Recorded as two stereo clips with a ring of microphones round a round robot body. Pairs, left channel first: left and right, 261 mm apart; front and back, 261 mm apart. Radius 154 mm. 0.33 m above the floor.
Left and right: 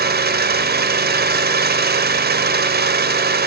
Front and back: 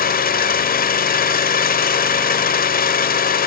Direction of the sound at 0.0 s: 45° right.